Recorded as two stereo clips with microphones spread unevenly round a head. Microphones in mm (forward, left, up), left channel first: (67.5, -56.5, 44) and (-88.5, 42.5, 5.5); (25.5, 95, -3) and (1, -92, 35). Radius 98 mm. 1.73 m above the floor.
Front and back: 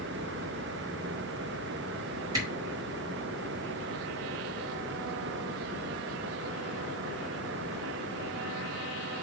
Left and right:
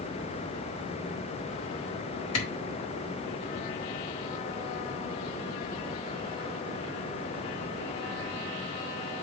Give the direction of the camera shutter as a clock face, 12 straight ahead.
10 o'clock.